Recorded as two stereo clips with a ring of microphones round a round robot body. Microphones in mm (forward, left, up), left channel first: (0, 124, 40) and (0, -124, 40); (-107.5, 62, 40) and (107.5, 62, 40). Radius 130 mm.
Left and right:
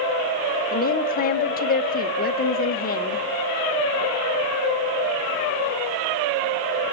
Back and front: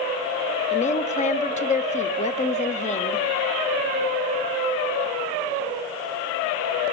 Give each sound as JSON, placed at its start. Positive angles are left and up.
{"t": 0.7, "sound": "a woman speaking", "azimuth_deg": 135, "distance_m": 1.5}